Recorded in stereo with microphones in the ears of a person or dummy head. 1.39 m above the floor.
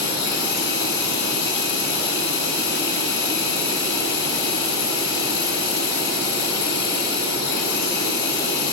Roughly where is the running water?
Left.